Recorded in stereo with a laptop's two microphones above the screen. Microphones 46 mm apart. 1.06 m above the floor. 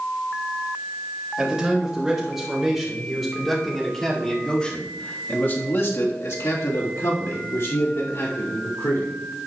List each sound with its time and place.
1.4 s a man speaking: 10° right (ahead or behind), 4.5 m; by 9.2 s 60° left (ahead or behind), 3.5 m